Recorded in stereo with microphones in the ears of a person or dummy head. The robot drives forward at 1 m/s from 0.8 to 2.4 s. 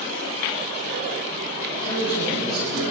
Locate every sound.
1.7 s a man speaking: 25° left (ahead or behind), 7.5 m